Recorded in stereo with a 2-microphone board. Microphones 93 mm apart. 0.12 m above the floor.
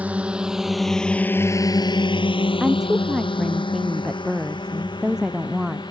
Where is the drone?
15° right (ahead or behind); by 5.9 s 50° left (ahead or behind).